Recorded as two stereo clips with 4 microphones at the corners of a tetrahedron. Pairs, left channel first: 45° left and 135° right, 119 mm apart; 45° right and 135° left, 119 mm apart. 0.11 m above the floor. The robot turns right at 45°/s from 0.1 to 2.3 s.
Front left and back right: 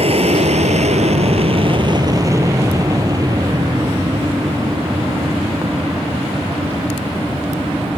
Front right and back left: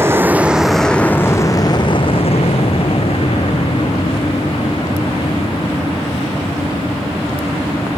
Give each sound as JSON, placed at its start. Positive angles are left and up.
{"t": 0.0, "sound": "an aircraft", "azimuth_deg": -155}